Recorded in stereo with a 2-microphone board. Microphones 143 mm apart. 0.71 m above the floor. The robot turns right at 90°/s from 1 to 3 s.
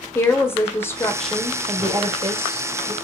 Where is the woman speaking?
150° left, 0.5 m; by 2.9 s 35° right, 0.5 m.